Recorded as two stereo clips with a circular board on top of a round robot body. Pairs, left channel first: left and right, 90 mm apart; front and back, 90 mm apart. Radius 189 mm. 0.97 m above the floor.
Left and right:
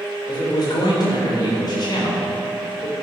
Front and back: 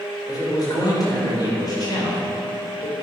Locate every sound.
0.3 s a man speaking: 45° left, 4.5 m